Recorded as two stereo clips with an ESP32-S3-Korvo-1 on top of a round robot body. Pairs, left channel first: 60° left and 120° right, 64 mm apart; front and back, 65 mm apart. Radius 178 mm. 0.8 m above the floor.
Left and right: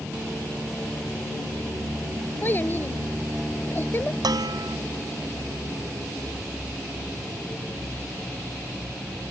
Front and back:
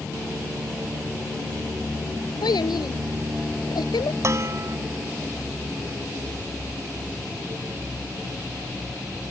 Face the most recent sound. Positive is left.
turn(degrees=-135)